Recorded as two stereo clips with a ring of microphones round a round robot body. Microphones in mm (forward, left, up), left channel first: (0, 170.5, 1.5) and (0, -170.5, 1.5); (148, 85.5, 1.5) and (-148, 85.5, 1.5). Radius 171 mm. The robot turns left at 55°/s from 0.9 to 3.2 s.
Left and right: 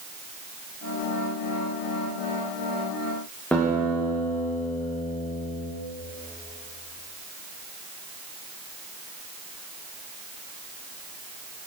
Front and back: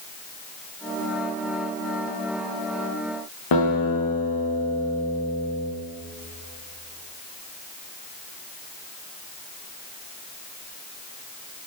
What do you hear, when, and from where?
3.5 s a guitar: 5° left, 6.5 m